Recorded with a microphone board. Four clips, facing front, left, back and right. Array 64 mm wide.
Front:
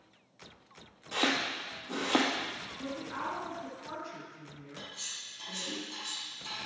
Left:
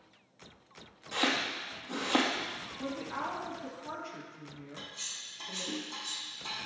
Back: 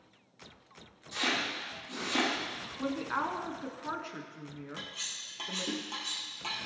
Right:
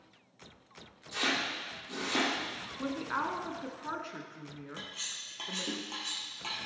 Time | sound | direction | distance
1.1 | chopping | 35° left | 2.5 m
2.8 | a woman speaking | 130° right | 1.9 m
4.8 | cutlery clinking | 130° right | 3.5 m